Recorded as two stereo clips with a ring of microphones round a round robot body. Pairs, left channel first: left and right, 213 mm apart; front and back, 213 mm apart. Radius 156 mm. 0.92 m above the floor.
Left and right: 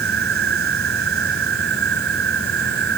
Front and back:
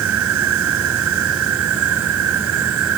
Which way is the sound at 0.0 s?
145° right.